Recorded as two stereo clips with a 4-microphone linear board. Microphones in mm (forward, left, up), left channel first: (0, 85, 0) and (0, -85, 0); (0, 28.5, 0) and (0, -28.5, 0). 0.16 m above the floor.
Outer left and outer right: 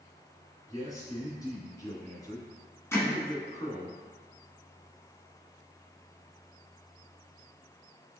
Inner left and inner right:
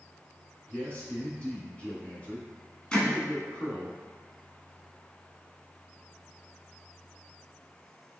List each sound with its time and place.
0.7 s a man speaking: 20° left (ahead or behind), 1.5 m
2.9 s hammering: 15° left (ahead or behind), 0.9 m